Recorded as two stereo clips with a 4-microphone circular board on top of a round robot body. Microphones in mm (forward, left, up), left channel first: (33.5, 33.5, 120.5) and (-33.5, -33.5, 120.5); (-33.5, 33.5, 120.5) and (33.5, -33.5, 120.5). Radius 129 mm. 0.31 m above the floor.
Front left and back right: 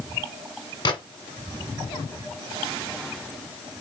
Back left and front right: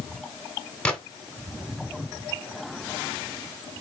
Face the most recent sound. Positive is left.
turn(degrees=55)